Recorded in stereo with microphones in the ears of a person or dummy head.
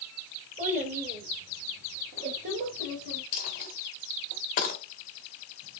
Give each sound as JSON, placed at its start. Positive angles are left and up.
{"t": 0.6, "sound": "a child speaking", "side_deg": -40, "distance_m": 1.9}
{"t": 3.3, "sound": "a dropped coin", "side_deg": 50, "distance_m": 1.0}